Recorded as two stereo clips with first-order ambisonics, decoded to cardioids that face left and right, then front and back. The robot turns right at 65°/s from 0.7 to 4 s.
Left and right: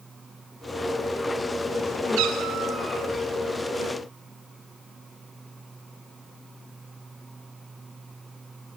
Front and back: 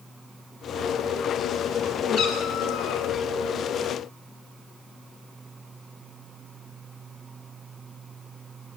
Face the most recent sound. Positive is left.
turn(degrees=70)